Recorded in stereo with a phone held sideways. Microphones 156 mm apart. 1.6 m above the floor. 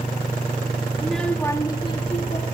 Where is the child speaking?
5° right (ahead or behind), 1.5 m; by 2.4 s 45° left (ahead or behind), 2.5 m.